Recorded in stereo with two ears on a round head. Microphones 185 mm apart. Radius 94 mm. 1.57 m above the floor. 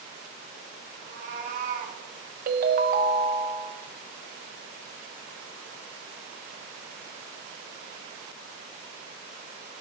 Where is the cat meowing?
40° right (ahead or behind), 3 m; by 2.0 s 45° right (ahead or behind), 2.5 m.